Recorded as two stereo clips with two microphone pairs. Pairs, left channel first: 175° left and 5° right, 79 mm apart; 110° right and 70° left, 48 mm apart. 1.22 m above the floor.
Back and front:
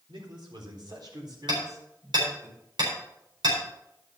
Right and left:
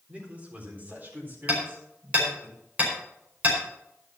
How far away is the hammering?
About 5 m.